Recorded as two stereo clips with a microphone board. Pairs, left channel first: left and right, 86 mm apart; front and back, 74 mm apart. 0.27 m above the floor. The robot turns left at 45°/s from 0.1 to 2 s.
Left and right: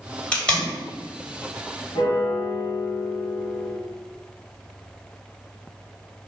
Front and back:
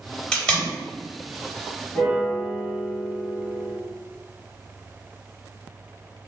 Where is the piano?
85° left, 1.6 m.